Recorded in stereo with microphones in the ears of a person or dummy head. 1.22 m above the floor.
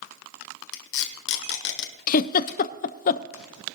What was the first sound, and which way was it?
Tape being pulled, 60° left (ahead or behind).